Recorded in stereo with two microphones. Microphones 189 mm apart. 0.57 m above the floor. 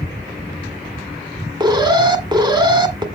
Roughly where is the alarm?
Right.